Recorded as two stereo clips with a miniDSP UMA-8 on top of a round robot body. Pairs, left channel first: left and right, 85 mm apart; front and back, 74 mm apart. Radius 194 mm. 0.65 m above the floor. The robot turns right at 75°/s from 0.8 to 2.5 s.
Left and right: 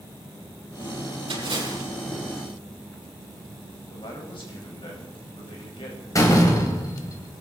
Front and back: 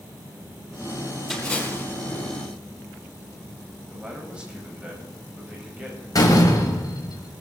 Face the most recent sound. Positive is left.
turn(degrees=40)